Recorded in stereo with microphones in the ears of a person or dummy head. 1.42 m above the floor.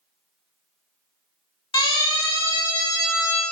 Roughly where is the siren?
Left.